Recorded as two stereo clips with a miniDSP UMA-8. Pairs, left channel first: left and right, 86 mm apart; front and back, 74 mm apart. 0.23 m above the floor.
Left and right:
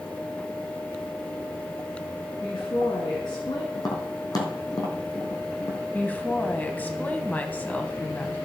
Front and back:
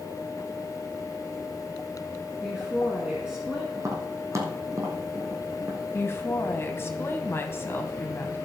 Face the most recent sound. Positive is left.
turn(degrees=30)